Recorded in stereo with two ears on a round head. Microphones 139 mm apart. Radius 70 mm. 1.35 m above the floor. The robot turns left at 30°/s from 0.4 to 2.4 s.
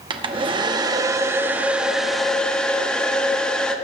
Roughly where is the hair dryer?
Behind right.